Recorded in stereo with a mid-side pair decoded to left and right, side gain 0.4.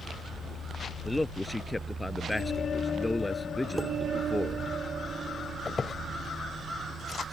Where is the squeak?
40° left.